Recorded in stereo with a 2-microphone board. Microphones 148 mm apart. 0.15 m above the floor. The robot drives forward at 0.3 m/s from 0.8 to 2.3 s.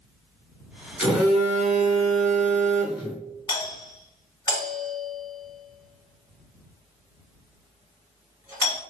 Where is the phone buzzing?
5° right (ahead or behind), 0.8 m.